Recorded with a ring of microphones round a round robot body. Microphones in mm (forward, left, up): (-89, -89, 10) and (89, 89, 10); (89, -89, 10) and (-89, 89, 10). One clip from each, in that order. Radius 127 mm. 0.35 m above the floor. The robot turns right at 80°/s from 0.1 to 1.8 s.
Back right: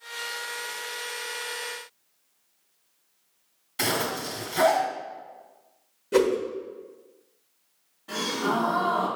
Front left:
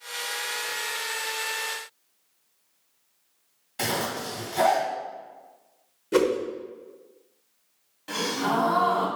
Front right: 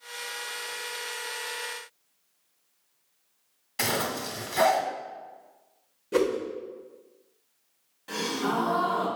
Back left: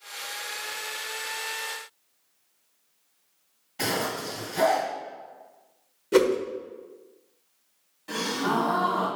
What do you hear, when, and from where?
3.8 s a zipper: 55° right, 1.5 m
6.1 s a whoosh: 115° left, 1.0 m
8.1 s a gasp: 40° left, 1.9 m